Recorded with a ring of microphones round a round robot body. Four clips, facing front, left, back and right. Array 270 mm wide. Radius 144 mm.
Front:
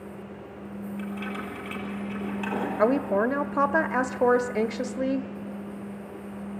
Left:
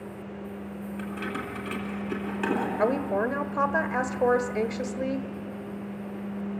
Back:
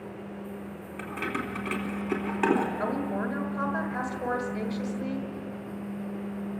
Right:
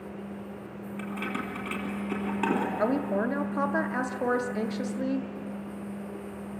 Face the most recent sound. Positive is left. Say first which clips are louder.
# left 4 dB, front 7 dB
turn(degrees=5)